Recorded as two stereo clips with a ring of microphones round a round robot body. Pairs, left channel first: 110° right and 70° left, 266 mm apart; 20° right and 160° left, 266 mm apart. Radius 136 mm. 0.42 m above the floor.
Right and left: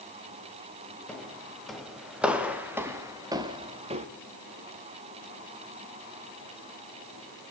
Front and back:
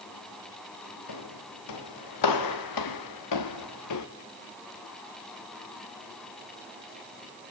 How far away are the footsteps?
About 5.5 m.